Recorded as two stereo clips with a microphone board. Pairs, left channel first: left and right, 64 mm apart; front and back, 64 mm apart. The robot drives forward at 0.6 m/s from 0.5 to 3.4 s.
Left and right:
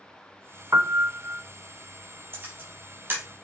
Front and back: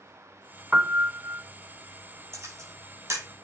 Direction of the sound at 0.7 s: 115° right.